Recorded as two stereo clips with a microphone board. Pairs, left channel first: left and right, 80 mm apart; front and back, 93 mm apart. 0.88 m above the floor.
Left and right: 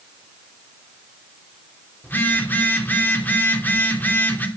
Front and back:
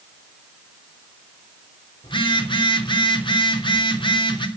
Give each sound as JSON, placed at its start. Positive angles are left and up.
{"t": 2.0, "sound": "a phone buzzing", "azimuth_deg": 25, "distance_m": 3.0}